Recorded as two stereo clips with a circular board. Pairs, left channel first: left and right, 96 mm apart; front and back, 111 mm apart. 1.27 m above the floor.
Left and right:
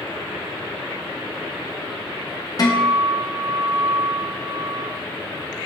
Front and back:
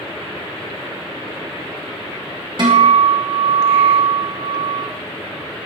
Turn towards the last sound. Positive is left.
turn(degrees=135)